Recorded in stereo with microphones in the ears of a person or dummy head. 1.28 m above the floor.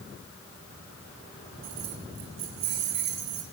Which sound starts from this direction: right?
Keys jangling, at 1.6 s.